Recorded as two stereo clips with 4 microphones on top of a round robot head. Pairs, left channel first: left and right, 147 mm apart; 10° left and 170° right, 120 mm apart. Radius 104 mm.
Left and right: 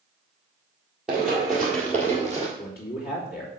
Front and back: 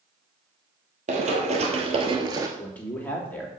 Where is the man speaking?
85° left, 3 m.